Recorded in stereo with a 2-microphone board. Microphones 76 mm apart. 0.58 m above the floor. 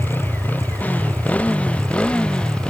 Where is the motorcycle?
25° left (ahead or behind); by 2.7 s 10° left (ahead or behind).